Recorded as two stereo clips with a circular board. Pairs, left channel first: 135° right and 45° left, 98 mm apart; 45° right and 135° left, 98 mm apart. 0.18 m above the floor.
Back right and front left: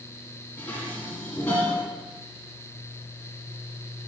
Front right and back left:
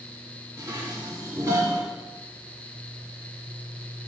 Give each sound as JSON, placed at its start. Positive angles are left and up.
{"t": 0.6, "sound": "dishes clattering", "azimuth_deg": 170, "distance_m": 1.1}